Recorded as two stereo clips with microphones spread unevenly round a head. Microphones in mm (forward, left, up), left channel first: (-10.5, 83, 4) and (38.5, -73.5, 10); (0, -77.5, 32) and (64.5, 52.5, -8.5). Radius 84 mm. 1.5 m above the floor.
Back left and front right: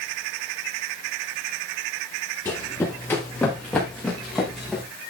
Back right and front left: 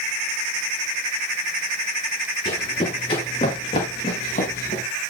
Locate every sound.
2.5 s running footsteps: straight behind, 9.5 m; by 4.8 s 160° right, 6.5 m